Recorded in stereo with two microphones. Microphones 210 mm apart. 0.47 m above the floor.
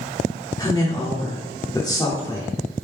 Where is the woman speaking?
15° left (ahead or behind), 0.8 m.